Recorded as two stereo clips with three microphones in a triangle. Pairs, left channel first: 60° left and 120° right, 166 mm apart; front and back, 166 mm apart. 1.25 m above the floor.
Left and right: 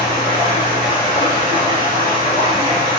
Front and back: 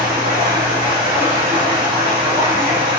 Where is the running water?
115° right, 1.3 m.